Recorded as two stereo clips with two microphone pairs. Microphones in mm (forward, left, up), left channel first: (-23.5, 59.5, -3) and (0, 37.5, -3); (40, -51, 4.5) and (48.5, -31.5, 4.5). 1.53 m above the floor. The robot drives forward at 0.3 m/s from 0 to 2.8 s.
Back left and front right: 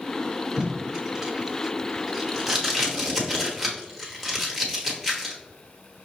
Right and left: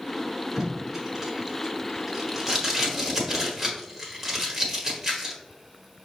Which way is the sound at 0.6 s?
25° left.